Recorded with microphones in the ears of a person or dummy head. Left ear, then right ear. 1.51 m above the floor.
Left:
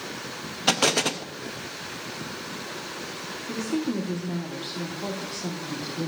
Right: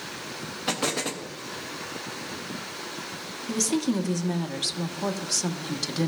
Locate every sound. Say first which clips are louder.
0.7 s an explosion: left 6 dB; 25° left (ahead or behind), 0.5 m
3.5 s a woman speaking: right 3 dB; 70° right (ahead or behind), 1.2 m